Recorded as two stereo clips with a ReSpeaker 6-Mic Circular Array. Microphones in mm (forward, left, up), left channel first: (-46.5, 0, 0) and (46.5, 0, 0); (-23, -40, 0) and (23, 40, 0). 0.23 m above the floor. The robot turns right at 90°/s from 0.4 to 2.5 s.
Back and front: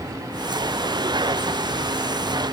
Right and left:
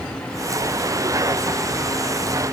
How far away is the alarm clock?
No alarm clock in this recording.